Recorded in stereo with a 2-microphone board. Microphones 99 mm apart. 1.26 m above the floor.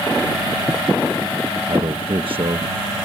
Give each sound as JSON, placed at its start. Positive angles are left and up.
{"t": 1.7, "sound": "a man speaking", "side_deg": -60}